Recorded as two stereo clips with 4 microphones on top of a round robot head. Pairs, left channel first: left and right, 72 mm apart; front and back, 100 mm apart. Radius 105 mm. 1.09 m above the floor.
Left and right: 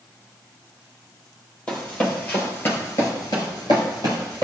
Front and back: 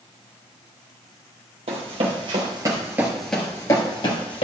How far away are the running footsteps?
About 1.9 m.